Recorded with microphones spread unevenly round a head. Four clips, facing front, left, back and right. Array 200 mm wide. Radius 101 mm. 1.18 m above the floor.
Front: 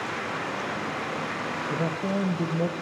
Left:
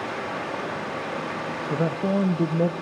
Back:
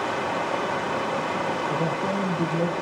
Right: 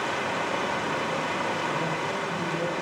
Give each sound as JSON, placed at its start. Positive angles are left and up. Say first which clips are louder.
{"t": 0.0, "sound": "running water", "louder": "right 2 dB, back 5 dB", "azimuth_deg": 180, "distance_m": 1.7}
{"t": 1.7, "sound": "a man speaking", "louder": "left 4 dB, back 3 dB", "azimuth_deg": 95, "distance_m": 1.4}